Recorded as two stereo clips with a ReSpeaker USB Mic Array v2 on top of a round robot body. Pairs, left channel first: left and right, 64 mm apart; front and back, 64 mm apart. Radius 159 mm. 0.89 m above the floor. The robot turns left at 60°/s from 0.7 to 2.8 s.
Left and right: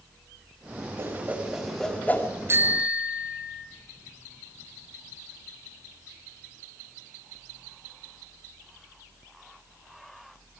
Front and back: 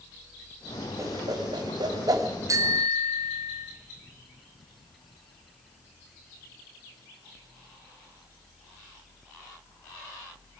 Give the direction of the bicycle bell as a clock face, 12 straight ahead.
5 o'clock.